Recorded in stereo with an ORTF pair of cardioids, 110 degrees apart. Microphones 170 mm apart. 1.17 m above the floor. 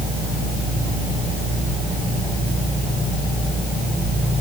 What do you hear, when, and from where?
Only background noise.